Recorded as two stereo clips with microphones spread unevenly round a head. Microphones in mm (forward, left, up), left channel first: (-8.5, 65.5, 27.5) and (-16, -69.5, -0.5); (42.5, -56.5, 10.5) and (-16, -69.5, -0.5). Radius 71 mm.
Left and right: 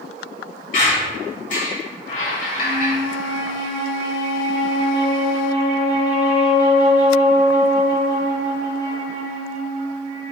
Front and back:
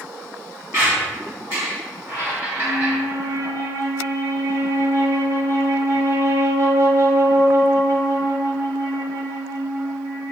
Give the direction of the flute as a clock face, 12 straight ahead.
4 o'clock.